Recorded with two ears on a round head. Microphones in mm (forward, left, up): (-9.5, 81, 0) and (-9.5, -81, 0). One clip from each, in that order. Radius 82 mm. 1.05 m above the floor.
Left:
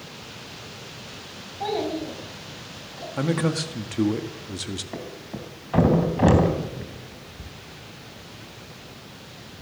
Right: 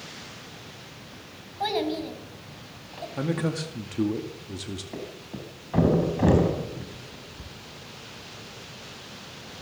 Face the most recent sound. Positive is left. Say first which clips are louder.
# left 2 dB
turn(degrees=25)  # may be behind; listen again after turning